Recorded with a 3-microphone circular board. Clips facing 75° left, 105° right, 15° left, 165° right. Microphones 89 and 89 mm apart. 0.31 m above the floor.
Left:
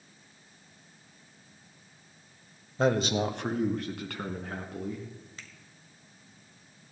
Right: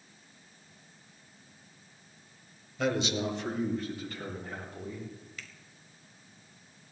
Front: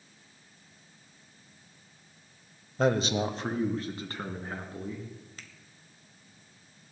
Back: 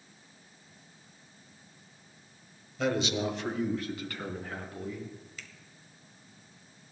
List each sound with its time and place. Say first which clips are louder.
2.8 s a man speaking: left 4 dB, front 3 dB; 40° left, 1.1 m; by 5.1 s 75° left, 4 m
5.4 s a finger snap: right 1 dB, back 1 dB; 35° left, 1.3 m